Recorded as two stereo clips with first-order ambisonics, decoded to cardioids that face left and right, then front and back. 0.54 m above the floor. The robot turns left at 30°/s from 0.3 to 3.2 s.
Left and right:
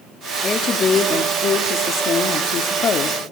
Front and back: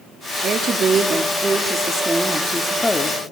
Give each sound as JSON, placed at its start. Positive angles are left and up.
{"t": 0.4, "sound": "a woman speaking", "azimuth_deg": 150, "distance_m": 0.7}